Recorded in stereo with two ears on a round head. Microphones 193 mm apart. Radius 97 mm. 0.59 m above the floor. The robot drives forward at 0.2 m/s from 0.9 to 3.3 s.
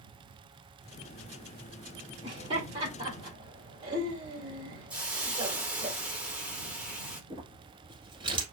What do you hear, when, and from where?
2.2 s laughter: 25° right (ahead or behind), 1.8 m
4.9 s a hiss: 5° right (ahead or behind), 1.0 m
7.3 s crumpling: 25° right (ahead or behind), 1.6 m